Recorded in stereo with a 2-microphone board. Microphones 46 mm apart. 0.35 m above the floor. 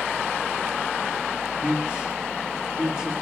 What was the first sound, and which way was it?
A man speaking, 20° right (ahead or behind).